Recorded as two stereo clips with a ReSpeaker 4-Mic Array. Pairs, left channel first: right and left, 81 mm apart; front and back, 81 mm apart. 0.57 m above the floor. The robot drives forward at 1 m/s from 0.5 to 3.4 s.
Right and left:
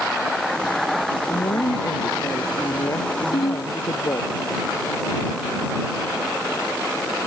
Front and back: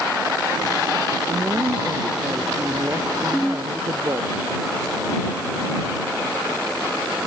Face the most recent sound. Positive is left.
turn(degrees=-85)